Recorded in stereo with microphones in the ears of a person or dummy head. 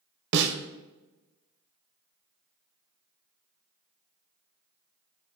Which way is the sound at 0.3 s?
70° right (ahead or behind).